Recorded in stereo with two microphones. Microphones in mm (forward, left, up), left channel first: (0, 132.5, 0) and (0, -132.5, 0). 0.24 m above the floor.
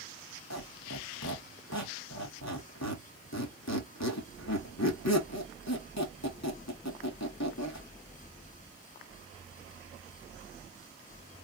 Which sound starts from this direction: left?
A squeak, at 0.5 s.